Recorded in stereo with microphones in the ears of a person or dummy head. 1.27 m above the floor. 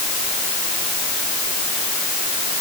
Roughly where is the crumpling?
No crumpling in this recording.